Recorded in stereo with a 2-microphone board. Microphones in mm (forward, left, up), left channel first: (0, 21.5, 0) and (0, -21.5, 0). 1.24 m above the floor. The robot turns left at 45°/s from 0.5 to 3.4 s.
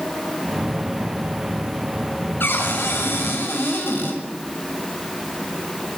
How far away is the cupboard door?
About 7 m.